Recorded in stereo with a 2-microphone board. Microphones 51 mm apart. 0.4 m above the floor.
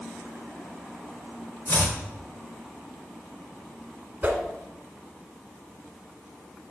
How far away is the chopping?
About 1.4 m.